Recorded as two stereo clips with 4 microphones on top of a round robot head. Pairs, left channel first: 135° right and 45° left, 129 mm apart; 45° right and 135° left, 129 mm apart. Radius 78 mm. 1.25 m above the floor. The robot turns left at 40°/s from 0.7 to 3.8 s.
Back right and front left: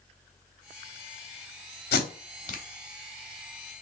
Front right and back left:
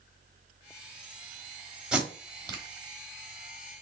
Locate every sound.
1.9 s tape being pulled: 140° right, 1.0 m; by 2.6 s 170° right, 1.0 m